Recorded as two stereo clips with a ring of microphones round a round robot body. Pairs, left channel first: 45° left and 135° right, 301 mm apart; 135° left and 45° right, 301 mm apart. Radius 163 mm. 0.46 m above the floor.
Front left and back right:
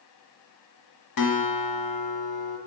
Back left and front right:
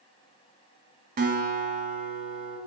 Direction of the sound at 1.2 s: 20° left.